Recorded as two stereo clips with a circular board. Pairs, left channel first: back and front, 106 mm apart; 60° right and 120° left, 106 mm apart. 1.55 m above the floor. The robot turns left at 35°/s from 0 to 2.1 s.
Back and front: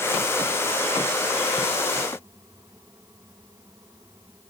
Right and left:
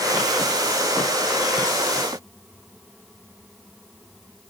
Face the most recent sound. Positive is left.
No sound to turn to.